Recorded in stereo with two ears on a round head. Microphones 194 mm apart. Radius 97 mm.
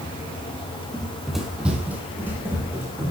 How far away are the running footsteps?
About 1.1 m.